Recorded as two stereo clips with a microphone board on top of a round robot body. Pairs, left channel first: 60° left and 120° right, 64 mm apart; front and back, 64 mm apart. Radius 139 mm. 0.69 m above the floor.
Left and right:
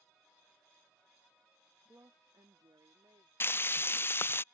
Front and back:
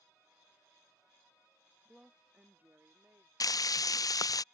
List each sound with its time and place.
1.9 s a woman speaking: 100° right; by 3.3 s 130° right
3.4 s frying: 10° left